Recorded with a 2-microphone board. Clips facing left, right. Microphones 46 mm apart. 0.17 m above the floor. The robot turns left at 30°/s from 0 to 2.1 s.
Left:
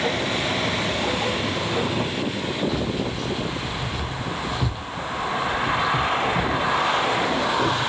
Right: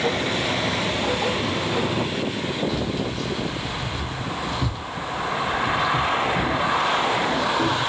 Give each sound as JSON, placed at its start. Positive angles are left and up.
{"t": 2.7, "sound": "keys jangling", "side_deg": 5, "distance_m": 0.9}